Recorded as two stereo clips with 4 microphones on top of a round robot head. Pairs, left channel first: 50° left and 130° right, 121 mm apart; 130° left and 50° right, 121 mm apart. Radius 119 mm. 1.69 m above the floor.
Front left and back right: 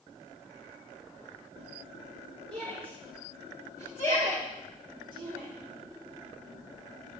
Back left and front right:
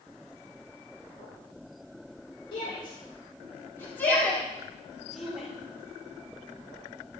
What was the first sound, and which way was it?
A shout, straight behind.